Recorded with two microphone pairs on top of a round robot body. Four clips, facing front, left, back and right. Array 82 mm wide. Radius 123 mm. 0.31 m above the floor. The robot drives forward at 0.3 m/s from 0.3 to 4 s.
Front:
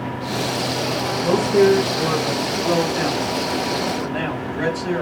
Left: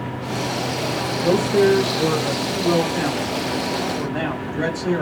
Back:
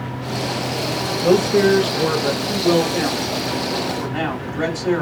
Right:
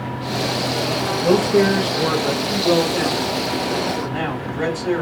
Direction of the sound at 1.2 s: Straight behind.